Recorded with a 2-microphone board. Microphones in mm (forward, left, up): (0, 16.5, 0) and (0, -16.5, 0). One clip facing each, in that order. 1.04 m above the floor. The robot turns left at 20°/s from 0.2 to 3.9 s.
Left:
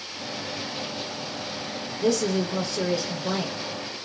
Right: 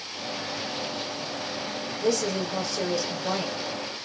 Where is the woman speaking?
45° left, 1.3 m; by 3.5 s 15° left, 1.3 m.